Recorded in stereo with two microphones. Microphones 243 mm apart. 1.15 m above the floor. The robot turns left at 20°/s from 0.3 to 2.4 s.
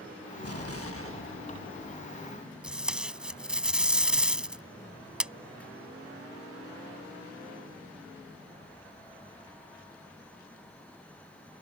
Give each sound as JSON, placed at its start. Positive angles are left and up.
{"t": 0.4, "sound": "an explosion", "azimuth_deg": 75}
{"t": 2.6, "sound": "tape being pulled", "side_deg": -5}